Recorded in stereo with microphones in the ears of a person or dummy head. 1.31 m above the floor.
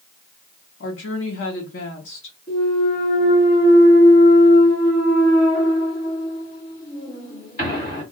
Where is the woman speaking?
50° left (ahead or behind), 0.8 m.